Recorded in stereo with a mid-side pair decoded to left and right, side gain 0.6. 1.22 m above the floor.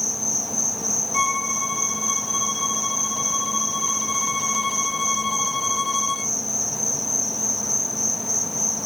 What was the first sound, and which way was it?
An insect, 5° left.